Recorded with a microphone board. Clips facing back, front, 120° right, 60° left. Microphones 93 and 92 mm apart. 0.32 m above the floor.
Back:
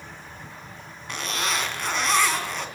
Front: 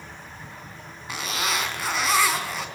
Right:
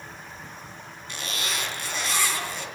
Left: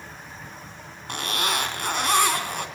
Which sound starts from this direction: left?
A zipper, at 1.1 s.